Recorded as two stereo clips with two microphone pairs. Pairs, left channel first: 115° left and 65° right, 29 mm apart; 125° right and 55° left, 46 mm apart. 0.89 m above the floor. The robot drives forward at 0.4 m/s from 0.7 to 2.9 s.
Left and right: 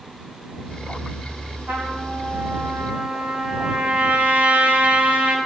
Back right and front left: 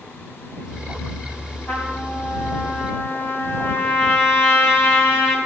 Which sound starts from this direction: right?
A trumpet, at 1.7 s.